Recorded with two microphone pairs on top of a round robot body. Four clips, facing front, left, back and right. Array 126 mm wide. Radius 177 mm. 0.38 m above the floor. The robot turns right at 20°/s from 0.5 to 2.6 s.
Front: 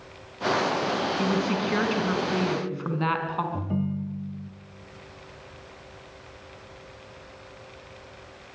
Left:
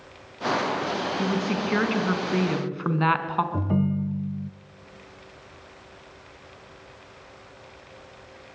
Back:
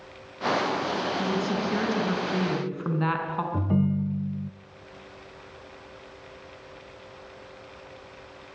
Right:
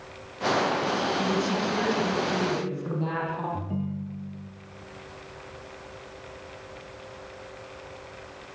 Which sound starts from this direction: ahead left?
A woman speaking, at 1.2 s.